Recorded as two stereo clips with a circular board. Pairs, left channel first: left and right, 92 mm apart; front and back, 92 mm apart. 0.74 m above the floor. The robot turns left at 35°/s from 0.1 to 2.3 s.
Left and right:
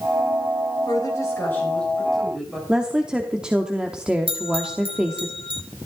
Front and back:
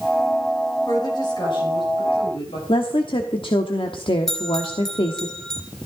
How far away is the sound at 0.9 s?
About 4 m.